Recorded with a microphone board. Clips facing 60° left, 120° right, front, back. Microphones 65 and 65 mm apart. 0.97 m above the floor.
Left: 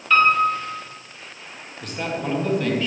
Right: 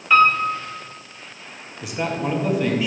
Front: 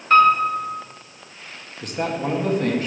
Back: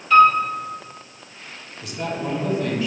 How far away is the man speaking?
About 1.3 m.